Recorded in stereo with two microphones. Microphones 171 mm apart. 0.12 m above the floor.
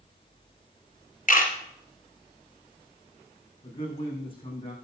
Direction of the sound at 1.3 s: 45° left (ahead or behind).